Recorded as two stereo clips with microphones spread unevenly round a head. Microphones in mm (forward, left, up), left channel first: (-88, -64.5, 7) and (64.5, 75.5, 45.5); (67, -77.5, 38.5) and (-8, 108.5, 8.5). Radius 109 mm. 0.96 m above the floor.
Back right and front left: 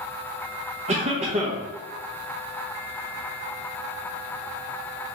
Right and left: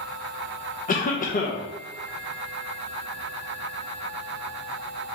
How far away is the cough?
About 0.6 m.